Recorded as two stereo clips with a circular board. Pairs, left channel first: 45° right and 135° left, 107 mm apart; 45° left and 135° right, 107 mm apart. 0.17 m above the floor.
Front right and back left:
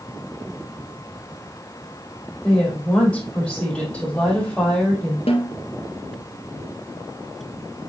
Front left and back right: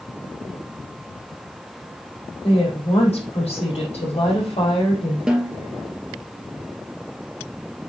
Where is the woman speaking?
35° left, 5 m.